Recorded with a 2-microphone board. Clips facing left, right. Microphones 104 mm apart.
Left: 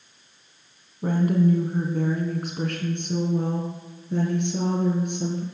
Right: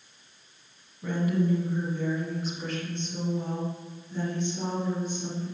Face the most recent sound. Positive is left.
turn(degrees=65)  # may be behind; listen again after turning